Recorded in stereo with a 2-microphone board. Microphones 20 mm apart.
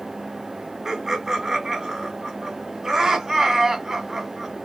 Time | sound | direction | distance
0.8 | laughter | 25° right (ahead or behind) | 1.7 m